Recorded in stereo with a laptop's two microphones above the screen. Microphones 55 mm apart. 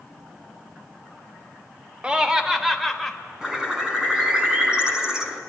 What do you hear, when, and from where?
2.0 s laughter: 20° right (ahead or behind), 2.5 m; by 3.1 s centre (ahead or behind), 4 m
3.4 s a bird: 15° right (ahead or behind), 4 m